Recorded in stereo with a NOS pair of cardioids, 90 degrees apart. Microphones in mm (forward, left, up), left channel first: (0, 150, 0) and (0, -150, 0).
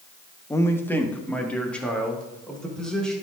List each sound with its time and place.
0.5 s a man speaking: 10° left, 1.0 m; by 3.1 s straight ahead, 4 m